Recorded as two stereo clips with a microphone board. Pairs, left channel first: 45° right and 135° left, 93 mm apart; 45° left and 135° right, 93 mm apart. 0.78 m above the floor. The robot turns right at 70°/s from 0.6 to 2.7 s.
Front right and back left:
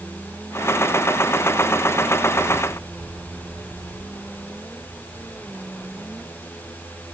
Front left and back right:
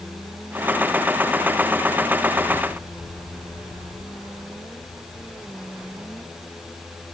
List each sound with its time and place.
Only background noise.